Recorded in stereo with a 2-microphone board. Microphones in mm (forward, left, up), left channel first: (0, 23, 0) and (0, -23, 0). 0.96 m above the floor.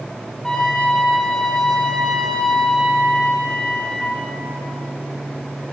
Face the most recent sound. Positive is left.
turn(degrees=15)  # may be behind; listen again after turning